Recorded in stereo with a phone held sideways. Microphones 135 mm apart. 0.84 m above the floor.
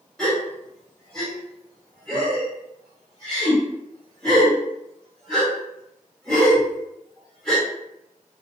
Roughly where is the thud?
I don't hear a thud.